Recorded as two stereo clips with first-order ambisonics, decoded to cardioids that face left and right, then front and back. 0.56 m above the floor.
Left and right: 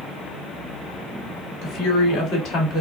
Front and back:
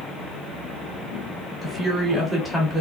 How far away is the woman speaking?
About 1.6 m.